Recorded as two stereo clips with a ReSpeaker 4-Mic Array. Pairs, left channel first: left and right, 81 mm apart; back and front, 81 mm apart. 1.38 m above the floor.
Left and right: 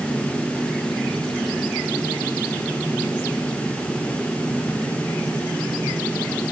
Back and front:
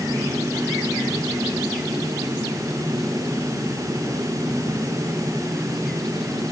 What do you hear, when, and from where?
Only background noise.